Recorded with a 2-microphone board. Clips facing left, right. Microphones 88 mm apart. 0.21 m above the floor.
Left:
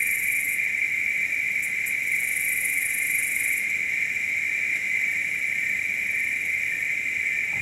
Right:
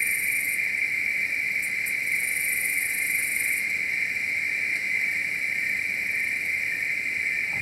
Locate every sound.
0.0 s an insect: 5° right (ahead or behind), 0.8 m